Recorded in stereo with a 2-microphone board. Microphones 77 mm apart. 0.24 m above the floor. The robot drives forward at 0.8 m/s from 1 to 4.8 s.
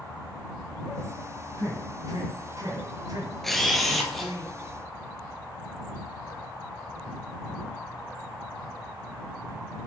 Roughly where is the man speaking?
Right.